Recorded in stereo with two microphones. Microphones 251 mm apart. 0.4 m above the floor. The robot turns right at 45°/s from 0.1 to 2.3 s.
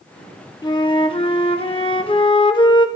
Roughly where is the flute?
Centre.